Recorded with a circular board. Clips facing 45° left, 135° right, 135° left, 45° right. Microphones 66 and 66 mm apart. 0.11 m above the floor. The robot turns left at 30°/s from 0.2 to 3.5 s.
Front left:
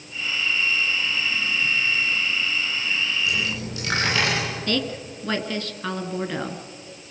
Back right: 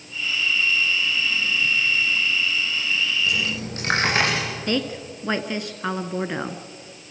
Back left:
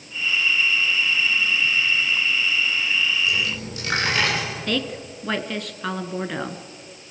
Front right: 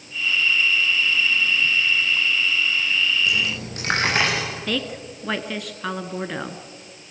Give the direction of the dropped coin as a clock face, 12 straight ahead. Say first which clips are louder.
Back right 1 dB, front right 1 dB; 3 o'clock.